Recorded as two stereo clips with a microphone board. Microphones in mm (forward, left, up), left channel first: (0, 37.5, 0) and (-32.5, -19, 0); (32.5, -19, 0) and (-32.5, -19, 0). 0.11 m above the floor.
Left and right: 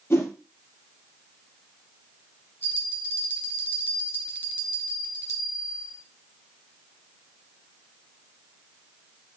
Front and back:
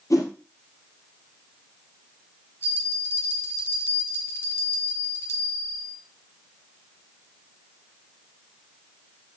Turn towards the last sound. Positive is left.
turn(degrees=20)